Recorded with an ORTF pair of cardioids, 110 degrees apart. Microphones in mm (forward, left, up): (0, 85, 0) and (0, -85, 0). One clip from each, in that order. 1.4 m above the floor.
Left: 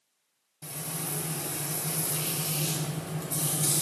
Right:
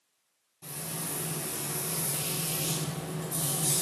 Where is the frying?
40° left, 1.1 m.